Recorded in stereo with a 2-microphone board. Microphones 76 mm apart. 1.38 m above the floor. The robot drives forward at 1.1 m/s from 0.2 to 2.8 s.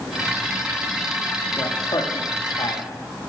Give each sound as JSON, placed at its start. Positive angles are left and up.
{"t": 1.6, "sound": "a man speaking", "side_deg": 55, "distance_m": 3.5}